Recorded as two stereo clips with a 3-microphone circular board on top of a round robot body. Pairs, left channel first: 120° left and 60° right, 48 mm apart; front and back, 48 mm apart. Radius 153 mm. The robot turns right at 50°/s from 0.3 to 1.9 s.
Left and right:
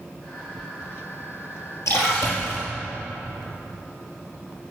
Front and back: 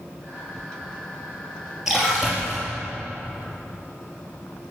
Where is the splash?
100° left, 4 m.